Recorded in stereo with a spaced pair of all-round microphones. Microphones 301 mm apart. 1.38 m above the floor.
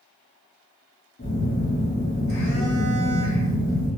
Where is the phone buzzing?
45° left (ahead or behind), 1.0 m.